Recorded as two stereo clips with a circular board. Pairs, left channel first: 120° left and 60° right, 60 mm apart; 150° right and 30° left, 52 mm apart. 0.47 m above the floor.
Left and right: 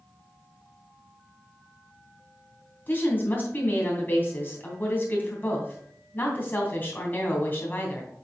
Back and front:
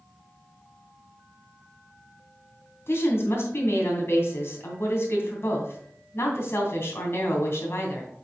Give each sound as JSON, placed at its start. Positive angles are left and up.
{"t": 2.9, "sound": "a woman speaking", "azimuth_deg": 175, "distance_m": 3.0}